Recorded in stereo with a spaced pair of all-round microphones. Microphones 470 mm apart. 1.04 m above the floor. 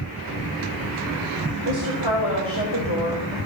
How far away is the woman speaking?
About 2.5 m.